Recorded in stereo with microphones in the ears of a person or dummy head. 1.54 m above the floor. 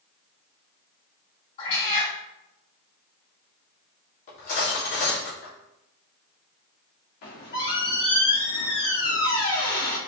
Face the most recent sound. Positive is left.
turn(degrees=55)  # may be behind; listen again after turning